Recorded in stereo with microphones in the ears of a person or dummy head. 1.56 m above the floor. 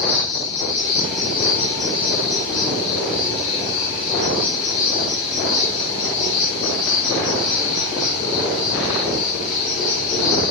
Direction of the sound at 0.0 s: 30° left (ahead or behind).